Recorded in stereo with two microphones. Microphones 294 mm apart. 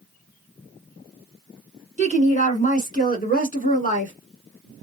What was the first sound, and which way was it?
A woman speaking, 25° left (ahead or behind).